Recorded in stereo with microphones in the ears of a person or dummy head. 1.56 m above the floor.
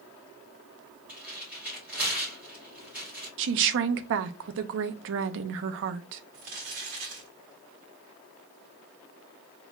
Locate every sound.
1.1 s tearing paper: 10° right (ahead or behind), 3 m
3.4 s a woman speaking: 65° right (ahead or behind), 0.5 m
6.3 s crumpling: 45° right (ahead or behind), 1.6 m